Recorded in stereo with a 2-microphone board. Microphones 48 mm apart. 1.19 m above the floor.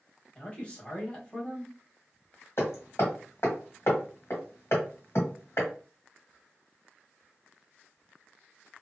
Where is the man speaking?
25° left (ahead or behind), 1.2 m.